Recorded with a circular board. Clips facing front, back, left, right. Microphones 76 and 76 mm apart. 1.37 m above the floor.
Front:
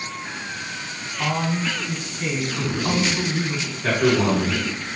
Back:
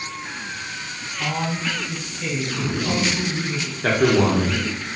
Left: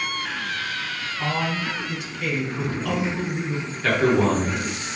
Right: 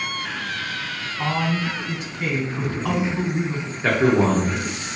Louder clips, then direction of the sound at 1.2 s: Front 2 dB, right 3 dB; 50° right.